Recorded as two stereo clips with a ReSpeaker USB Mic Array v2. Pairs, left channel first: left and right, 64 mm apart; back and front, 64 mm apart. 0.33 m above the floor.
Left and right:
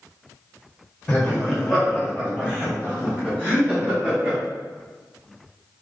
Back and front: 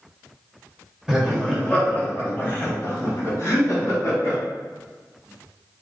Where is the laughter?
45° left, 1.4 m; by 4.4 s 150° right, 3 m.